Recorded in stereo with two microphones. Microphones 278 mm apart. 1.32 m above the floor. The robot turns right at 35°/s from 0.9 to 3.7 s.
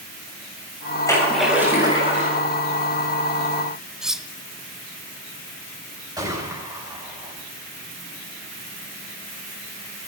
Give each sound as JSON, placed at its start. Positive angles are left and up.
{"t": 1.1, "sound": "a splash", "azimuth_deg": 170, "distance_m": 7.0}
{"t": 4.0, "sound": "cutlery clinking", "side_deg": 0, "distance_m": 0.5}
{"t": 6.2, "sound": "a gunshot", "side_deg": -15, "distance_m": 6.0}